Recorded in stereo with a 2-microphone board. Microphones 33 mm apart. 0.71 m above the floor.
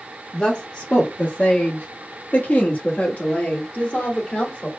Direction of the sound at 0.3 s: 25° left (ahead or behind).